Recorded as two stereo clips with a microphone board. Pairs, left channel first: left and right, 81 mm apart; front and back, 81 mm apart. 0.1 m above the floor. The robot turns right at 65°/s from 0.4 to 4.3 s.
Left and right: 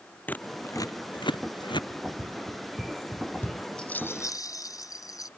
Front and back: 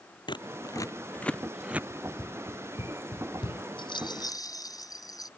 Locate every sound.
0.3 s scissors: 20° left; by 1.8 s 110° left
1.9 s running footsteps: 105° right; by 3.6 s 45° left
3.8 s a rattle: 10° left; by 5.3 s 40° left